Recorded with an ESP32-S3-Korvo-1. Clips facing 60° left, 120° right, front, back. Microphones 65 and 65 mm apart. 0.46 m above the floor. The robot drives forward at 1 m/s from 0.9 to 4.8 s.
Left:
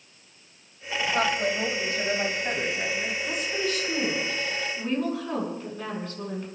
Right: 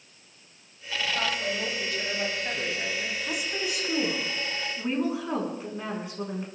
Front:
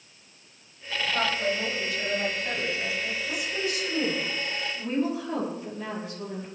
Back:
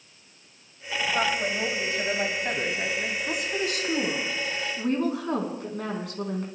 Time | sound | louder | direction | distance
1.1 | a woman speaking | left 5 dB, even | 100° left | 2.5 m
3.3 | a woman speaking | left 3 dB, back 2 dB | 160° left | 3.5 m